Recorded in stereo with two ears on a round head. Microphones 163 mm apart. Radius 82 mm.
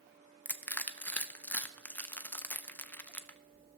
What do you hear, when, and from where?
0.5 s crushing: 10° left (ahead or behind), 0.6 m